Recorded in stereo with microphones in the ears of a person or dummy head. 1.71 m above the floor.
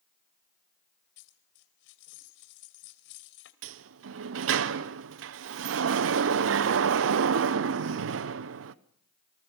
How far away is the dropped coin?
About 2.5 m.